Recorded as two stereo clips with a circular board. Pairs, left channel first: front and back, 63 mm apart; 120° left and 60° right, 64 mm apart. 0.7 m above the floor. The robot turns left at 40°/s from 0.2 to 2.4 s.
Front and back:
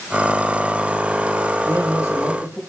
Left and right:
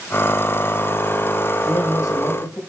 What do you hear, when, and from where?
1.6 s a man speaking: 145° left, 4.5 m; by 2.6 s 115° left, 4.5 m